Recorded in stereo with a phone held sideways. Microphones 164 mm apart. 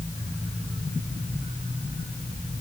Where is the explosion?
No explosion in this recording.